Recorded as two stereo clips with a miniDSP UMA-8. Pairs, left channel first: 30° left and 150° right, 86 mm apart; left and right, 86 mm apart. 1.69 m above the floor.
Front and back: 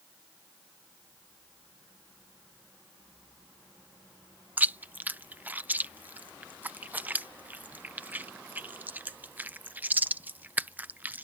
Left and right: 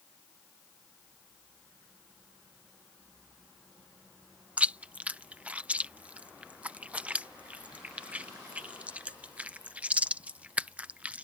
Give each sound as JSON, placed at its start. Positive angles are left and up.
{"t": 4.6, "sound": "chewing", "azimuth_deg": -135}